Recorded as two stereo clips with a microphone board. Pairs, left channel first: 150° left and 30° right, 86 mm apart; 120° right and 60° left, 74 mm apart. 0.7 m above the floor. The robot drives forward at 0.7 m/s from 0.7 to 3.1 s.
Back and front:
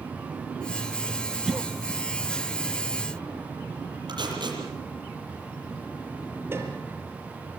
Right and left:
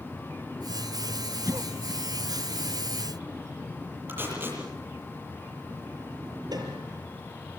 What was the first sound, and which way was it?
A cough, 50° left.